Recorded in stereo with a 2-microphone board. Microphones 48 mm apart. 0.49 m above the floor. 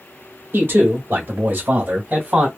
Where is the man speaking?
60° right (ahead or behind), 1.7 m; by 2.5 s 30° right (ahead or behind), 2 m.